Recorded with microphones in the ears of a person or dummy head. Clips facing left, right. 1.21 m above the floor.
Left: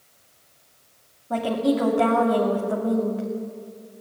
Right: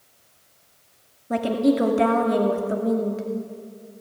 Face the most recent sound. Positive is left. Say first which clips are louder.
# right 2 dB
turn(degrees=-20)  # may be behind; listen again after turning